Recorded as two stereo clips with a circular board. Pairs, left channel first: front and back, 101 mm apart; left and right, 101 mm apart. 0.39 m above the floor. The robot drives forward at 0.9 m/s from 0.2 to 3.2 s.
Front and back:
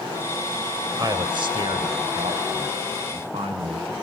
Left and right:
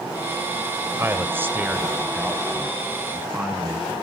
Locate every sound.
1.0 s a man speaking: 145° right, 1.2 m; by 3.9 s 170° right, 3 m